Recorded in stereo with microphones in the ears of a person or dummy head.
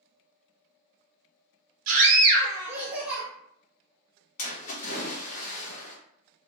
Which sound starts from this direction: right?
A scream, at 1.9 s.